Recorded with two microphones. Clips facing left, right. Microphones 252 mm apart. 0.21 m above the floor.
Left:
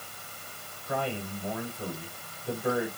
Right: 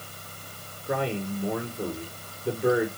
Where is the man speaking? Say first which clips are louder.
Right 5 dB; 70° right (ahead or behind), 5 m.